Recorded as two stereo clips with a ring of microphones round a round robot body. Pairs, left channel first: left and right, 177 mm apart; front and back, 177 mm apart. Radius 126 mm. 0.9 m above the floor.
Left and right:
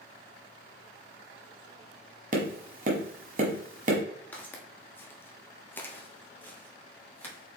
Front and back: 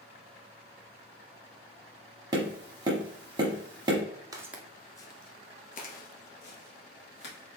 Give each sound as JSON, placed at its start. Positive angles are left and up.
{"t": 2.3, "sound": "tapping", "azimuth_deg": -115, "distance_m": 1.0}
{"t": 4.3, "sound": "footsteps", "azimuth_deg": 160, "distance_m": 0.9}